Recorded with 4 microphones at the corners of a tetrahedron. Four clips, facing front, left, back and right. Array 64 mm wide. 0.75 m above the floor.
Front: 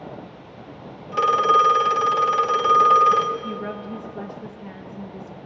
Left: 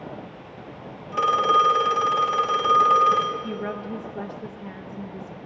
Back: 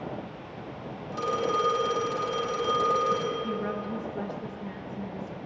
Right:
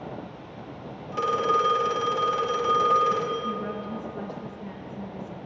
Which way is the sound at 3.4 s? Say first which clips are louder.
Even, front 1 dB; 60° left.